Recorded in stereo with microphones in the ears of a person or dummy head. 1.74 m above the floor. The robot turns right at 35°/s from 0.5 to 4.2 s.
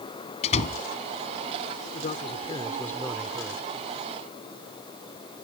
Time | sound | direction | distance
0.4 | a door slam | 35° left (ahead or behind) | ?
1.9 | a man speaking | 135° left | ?